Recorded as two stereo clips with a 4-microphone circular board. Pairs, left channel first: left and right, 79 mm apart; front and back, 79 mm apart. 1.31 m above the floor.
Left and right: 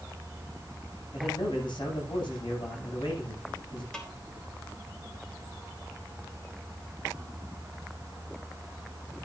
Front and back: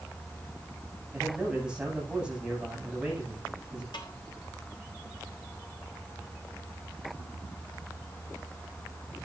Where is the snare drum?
10° left, 3.5 m.